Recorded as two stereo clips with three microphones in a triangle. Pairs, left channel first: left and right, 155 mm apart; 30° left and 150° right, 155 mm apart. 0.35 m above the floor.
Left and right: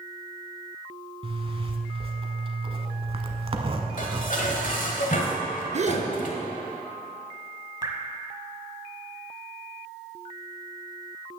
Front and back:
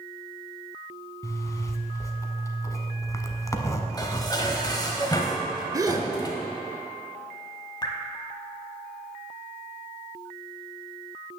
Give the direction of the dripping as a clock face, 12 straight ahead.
1 o'clock.